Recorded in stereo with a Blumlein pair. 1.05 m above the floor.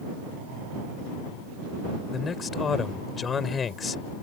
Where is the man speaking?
20° left.